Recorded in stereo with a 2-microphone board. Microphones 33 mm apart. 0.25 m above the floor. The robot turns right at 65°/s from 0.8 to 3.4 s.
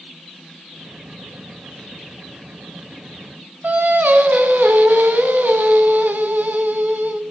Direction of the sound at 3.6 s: 65° right (ahead or behind).